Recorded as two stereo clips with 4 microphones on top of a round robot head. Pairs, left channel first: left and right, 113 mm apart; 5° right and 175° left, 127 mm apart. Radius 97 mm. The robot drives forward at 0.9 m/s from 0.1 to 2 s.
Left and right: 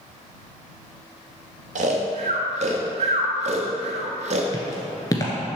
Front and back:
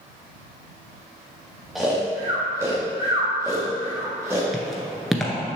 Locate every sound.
1.8 s snoring: 95° right, 1.0 m; by 4.4 s 105° right, 1.1 m
4.5 s footsteps: 85° left, 1.2 m